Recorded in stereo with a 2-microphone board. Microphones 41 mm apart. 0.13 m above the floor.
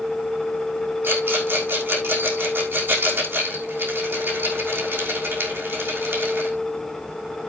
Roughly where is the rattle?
Right.